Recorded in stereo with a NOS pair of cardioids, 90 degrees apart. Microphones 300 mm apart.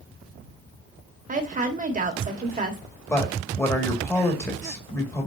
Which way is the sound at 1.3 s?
25° right.